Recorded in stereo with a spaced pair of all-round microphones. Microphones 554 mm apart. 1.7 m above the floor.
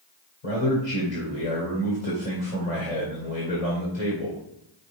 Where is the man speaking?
80° left, 1.9 m.